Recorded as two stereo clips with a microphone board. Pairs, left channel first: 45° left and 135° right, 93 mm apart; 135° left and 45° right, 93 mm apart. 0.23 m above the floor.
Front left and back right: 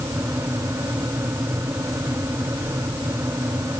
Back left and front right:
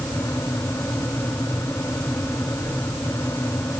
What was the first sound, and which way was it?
Only background noise.